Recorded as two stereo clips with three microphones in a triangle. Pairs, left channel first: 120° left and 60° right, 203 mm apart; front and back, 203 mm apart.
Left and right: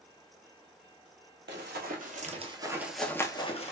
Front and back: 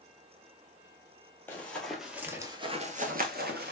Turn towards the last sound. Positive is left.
turn(degrees=165)